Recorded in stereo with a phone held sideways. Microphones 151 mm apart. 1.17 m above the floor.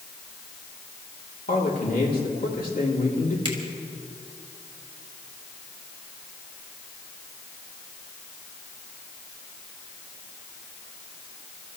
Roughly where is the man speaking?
Left.